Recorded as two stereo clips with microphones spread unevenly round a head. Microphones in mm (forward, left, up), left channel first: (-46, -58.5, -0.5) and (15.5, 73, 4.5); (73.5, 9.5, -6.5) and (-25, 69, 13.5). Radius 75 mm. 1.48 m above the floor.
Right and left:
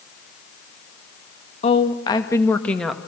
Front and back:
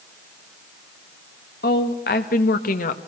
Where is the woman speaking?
60° right, 2 m; by 3.0 s 25° right, 1.8 m.